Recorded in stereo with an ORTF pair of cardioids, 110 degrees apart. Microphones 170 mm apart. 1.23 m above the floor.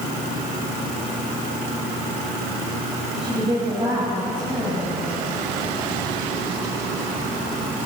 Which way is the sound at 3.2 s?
35° right.